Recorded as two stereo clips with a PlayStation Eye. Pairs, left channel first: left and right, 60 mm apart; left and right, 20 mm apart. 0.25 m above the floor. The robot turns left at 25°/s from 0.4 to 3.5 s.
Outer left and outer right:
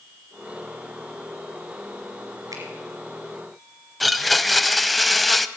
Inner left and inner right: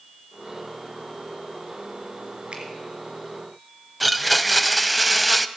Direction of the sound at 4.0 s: Centre (ahead or behind).